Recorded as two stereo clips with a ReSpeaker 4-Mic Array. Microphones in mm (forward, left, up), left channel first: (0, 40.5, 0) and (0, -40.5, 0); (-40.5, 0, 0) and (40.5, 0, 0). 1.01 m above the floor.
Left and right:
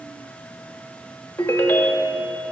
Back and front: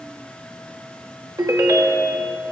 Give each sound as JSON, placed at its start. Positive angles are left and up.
{"t": 1.4, "sound": "a ringtone", "azimuth_deg": 35, "distance_m": 0.9}